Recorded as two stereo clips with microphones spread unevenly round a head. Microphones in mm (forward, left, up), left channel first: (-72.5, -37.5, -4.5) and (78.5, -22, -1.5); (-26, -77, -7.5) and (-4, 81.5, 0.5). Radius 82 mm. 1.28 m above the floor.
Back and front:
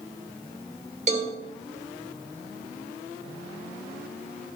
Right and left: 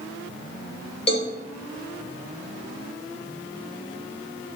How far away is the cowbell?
About 2.0 m.